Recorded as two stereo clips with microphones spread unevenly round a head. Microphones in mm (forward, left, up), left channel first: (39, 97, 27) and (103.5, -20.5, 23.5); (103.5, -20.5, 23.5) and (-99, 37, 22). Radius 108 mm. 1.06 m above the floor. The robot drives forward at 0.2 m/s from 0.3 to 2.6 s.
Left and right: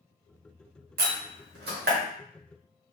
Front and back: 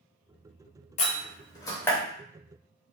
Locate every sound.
1.0 s a door slam: 80° right, 0.5 m; by 2.0 s 100° right, 0.5 m